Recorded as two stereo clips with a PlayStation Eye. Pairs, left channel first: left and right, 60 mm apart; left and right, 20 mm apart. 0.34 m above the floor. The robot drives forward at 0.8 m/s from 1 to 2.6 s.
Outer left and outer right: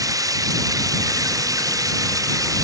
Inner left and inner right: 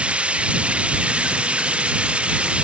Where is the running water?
75° right (ahead or behind).